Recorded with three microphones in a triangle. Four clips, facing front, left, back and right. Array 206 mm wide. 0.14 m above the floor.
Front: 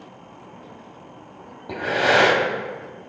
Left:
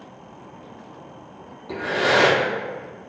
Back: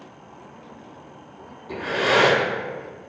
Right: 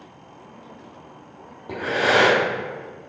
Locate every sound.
1.7 s breathing: 20° right, 1.3 m